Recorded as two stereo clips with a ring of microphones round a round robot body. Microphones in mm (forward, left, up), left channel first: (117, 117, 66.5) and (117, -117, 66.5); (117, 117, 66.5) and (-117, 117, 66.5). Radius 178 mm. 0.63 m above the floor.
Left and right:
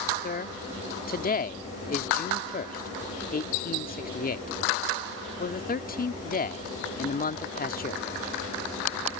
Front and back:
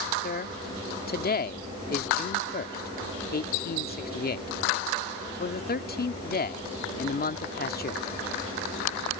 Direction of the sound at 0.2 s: 45° left.